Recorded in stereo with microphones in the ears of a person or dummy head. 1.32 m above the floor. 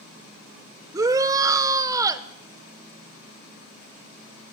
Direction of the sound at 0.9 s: 20° right (ahead or behind).